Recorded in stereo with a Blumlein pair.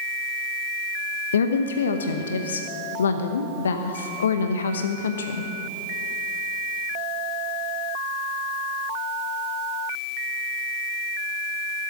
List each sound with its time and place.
1.3 s a woman speaking: 65° left, 0.8 m